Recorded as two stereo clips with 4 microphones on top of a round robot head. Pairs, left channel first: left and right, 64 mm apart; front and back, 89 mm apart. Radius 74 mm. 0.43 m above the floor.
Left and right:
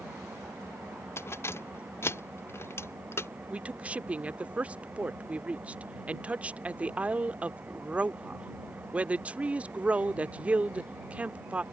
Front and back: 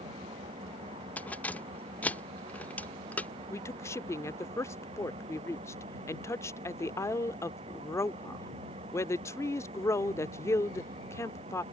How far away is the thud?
No thud in this recording.